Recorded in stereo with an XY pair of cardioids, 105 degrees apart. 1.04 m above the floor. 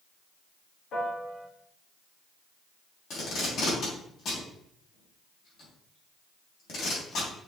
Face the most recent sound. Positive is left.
turn(degrees=60)